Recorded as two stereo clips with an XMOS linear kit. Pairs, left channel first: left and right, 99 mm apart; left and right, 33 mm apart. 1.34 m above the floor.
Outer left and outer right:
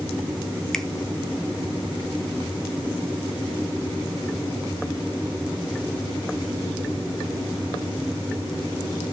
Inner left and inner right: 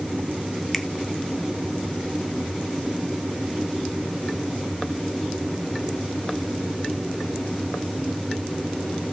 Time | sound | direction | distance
0.7 | a finger snap | 5° left (ahead or behind) | 0.9 m